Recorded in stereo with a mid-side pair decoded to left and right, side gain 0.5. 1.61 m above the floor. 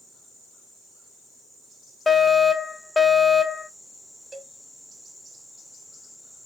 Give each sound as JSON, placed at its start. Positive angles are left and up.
{"t": 2.1, "sound": "a fire alarm", "azimuth_deg": 15, "distance_m": 1.6}
{"t": 4.3, "sound": "a cowbell", "azimuth_deg": -35, "distance_m": 1.4}